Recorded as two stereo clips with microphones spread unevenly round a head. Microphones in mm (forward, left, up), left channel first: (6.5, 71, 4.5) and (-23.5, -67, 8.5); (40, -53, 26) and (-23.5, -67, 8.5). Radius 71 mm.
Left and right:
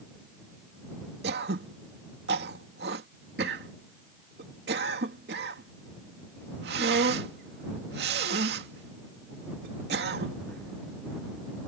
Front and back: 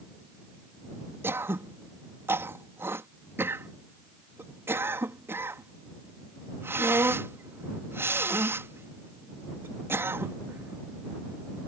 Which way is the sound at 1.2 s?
115° right.